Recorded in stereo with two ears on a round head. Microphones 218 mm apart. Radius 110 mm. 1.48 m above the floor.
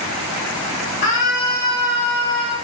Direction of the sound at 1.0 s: 45° left (ahead or behind).